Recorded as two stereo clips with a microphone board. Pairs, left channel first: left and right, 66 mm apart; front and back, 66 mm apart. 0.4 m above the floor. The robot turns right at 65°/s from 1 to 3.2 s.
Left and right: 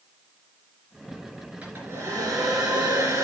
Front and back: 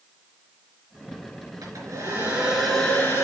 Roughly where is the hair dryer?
Behind.